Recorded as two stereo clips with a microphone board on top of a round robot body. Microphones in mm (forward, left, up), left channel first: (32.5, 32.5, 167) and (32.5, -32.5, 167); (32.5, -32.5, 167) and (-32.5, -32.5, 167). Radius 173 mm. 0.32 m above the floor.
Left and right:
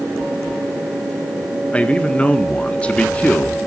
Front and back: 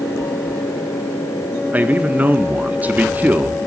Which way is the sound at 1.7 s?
145° left.